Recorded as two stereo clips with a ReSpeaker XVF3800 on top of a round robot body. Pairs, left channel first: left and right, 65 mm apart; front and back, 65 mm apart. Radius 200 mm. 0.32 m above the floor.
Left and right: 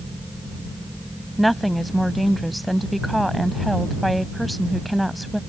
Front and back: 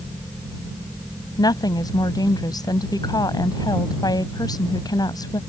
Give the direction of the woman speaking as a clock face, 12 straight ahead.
12 o'clock.